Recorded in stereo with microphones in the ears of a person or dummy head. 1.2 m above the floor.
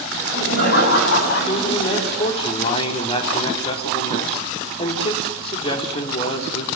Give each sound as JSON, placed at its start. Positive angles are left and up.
{"t": 0.1, "sound": "laughter", "side_deg": 65, "distance_m": 9.0}
{"t": 1.5, "sound": "a man speaking", "side_deg": 35, "distance_m": 4.0}